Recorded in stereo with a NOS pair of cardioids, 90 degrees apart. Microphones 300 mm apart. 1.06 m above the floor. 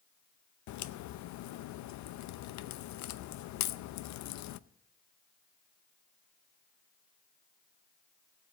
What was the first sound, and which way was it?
A crack, 65° left.